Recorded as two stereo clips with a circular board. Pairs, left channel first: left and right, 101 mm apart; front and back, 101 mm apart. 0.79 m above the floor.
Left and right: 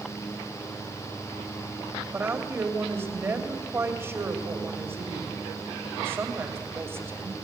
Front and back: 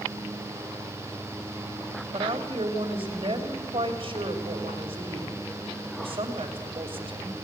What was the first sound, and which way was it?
A woman speaking, 155° right.